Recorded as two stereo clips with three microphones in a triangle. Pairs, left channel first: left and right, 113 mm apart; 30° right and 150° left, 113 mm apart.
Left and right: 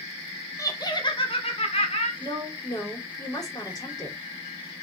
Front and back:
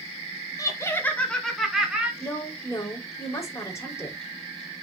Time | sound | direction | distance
0.6 | laughter | 30° left | 2.5 m
2.2 | a woman speaking | 35° left | 4.5 m